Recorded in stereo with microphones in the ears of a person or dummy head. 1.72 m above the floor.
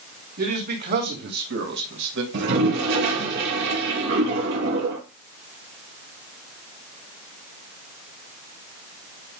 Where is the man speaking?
50° right (ahead or behind), 3 m; by 2.2 s 70° right (ahead or behind), 1.7 m.